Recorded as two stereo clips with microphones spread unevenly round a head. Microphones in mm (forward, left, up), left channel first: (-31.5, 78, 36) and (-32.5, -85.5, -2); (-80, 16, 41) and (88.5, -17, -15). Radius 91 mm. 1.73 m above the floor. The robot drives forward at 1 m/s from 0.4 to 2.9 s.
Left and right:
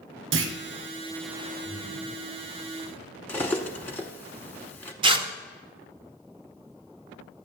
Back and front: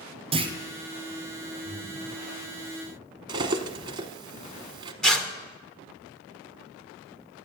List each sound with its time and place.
0.3 s a clunk: 75° right, 0.8 m; by 0.6 s 85° right, 0.8 m
1.6 s breathing: straight behind, 5.5 m
3.3 s cutlery clinking: 65° left, 0.8 m
5.0 s tearing paper: 145° right, 0.8 m